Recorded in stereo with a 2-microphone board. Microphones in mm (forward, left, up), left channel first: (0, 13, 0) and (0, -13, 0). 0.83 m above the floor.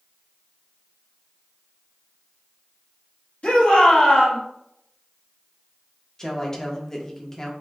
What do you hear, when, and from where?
3.4 s a shout: 60° left (ahead or behind), 2 m
6.2 s a woman speaking: 20° left (ahead or behind), 0.9 m